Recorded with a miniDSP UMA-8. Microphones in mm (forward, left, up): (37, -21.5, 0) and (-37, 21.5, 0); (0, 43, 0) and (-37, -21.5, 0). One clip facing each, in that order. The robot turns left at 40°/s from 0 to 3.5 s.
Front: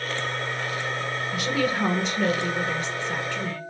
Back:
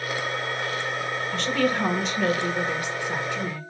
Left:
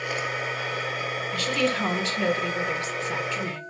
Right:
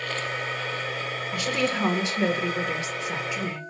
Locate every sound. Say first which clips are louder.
1.3 s a woman speaking: back 1 dB, left 1 dB; 85° right, 1.2 m; by 3.6 s 175° right, 1.2 m